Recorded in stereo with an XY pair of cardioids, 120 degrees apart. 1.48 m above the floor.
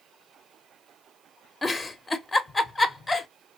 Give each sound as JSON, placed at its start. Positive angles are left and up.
{"t": 1.6, "sound": "a giggle", "azimuth_deg": 20, "distance_m": 0.6}